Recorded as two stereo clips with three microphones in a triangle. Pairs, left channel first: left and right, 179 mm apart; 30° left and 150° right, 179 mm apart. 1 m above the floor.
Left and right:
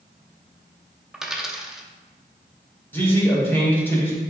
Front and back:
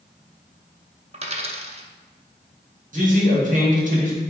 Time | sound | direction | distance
1.1 | a dropped coin | 175° right | 0.5 m
2.9 | a man speaking | 170° left | 1.6 m